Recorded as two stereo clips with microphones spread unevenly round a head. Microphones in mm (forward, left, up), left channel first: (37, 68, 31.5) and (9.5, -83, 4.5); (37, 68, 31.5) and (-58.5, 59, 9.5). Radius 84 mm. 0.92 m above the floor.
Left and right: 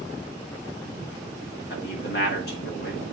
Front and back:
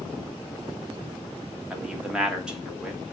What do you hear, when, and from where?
1.7 s a man speaking: 110° left, 2.5 m